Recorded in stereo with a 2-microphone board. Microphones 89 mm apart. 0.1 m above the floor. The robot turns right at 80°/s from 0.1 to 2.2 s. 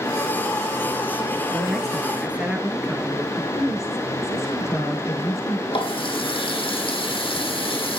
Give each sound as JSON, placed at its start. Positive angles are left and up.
{"t": 1.5, "sound": "a man speaking", "azimuth_deg": 150, "distance_m": 1.8}
{"t": 3.4, "sound": "a woman speaking", "side_deg": 30, "distance_m": 4.5}
{"t": 5.7, "sound": "a running tap", "side_deg": 75, "distance_m": 3.5}